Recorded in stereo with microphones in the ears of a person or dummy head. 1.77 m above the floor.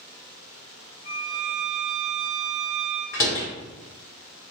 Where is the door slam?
15° left (ahead or behind), 0.7 m.